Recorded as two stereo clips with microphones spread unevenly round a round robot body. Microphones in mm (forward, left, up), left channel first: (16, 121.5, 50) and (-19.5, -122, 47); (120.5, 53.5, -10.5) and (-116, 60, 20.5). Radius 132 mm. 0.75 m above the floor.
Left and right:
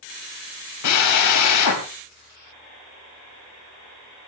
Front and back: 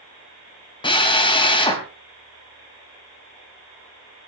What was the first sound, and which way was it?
A drill, 70° left.